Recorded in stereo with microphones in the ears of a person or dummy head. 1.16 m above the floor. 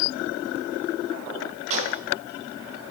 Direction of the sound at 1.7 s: 40° right (ahead or behind).